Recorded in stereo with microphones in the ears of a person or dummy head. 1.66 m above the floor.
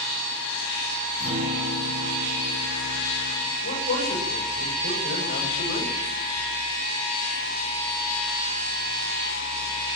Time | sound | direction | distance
1.2 | a guitar | 40° right (ahead or behind) | 10 m
3.6 | a man speaking | 55° left (ahead or behind) | 8 m